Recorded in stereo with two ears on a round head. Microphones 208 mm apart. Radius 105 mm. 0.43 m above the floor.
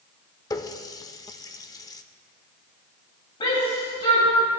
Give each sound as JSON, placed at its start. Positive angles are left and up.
{"t": 0.5, "sound": "a running tap", "side_deg": 15, "distance_m": 0.5}
{"t": 3.4, "sound": "a shout", "side_deg": 25, "distance_m": 3.0}